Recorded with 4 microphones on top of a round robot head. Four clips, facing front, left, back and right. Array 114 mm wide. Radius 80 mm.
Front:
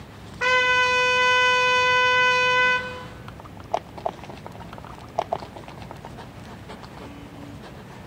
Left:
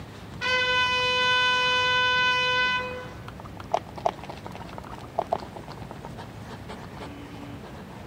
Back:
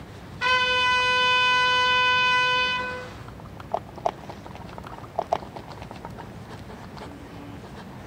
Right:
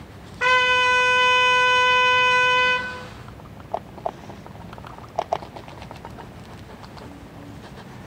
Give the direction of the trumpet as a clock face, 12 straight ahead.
2 o'clock.